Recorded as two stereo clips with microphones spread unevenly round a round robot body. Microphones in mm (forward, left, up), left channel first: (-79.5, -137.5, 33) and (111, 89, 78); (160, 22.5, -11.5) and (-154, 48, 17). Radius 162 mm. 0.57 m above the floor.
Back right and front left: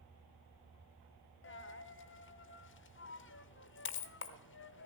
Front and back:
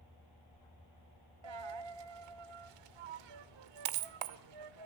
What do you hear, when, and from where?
1.4 s a dropped coin: straight behind, 1.0 m